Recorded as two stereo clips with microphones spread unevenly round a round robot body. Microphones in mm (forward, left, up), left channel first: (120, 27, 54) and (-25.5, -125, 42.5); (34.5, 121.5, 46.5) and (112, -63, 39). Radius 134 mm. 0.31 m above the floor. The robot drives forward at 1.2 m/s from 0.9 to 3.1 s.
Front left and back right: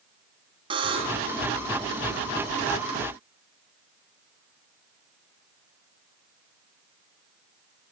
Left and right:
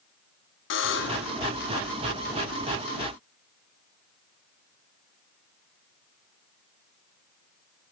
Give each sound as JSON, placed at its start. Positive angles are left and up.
{"t": 0.7, "sound": "a buzzer", "azimuth_deg": 155, "distance_m": 0.9}